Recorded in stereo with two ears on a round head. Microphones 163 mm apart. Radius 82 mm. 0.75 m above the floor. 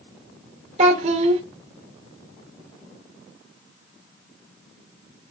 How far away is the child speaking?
About 0.6 m.